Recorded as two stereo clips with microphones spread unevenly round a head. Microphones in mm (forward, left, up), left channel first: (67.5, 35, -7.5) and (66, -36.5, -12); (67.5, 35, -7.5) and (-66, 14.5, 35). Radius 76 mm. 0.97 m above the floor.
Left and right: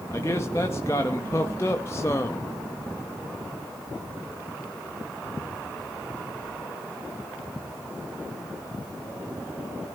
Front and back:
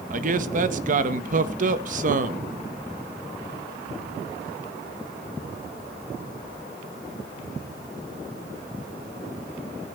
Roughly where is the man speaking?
Behind left.